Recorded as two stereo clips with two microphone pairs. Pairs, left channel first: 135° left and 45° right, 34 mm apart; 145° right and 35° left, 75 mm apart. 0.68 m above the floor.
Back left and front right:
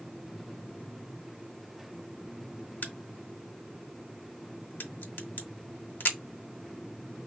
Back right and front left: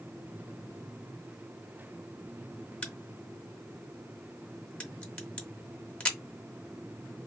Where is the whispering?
No whispering in this recording.